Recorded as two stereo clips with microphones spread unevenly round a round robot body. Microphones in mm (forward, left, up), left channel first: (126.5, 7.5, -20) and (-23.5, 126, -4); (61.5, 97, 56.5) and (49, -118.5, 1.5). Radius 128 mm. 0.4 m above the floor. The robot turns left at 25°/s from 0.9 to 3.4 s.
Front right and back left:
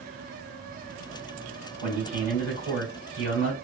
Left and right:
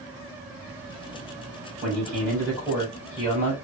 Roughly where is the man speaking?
Behind.